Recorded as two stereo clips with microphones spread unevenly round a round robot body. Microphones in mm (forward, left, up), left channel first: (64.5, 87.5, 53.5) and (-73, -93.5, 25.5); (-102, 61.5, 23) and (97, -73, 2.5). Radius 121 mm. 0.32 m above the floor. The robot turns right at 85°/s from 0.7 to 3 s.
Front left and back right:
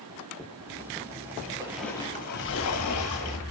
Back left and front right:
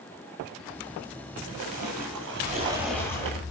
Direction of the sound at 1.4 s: 70° right.